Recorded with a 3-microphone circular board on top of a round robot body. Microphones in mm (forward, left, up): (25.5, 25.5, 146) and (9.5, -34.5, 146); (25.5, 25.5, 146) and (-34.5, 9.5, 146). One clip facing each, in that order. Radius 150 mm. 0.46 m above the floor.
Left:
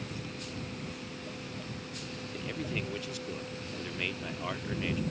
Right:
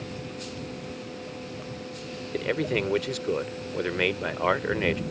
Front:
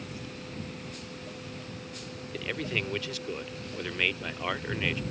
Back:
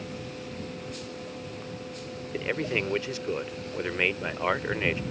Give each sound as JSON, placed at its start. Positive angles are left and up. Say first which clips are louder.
{"t": 2.3, "sound": "a man speaking", "louder": "right 11 dB, back 4 dB", "azimuth_deg": -105}